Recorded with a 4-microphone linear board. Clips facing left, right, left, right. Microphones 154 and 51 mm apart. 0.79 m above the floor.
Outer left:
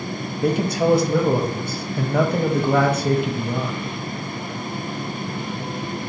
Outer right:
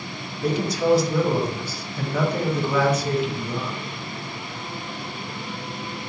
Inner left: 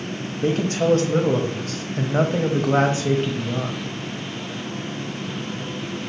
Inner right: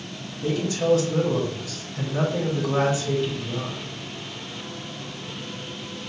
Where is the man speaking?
55° left (ahead or behind), 0.8 m.